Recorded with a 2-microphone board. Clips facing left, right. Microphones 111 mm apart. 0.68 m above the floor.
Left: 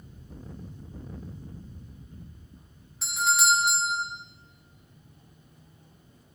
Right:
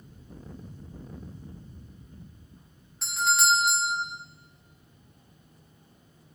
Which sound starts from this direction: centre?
A doorbell, at 3.0 s.